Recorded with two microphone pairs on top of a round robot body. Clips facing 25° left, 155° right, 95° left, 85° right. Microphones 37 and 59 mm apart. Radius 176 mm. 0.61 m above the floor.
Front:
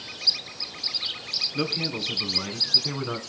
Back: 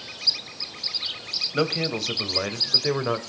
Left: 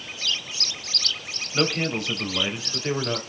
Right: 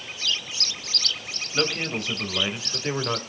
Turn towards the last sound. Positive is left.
turn(degrees=-165)